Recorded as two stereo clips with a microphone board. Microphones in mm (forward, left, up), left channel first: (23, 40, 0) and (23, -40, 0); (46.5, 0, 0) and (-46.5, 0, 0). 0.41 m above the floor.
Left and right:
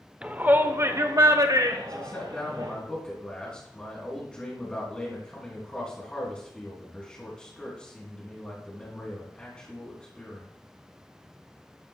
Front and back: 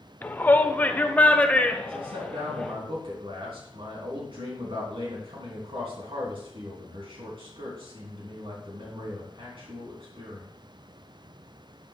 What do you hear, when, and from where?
0.2 s a shout: 35° right, 0.8 m; by 2.7 s 80° right, 1.9 m
1.9 s a man speaking: 170° left, 3.5 m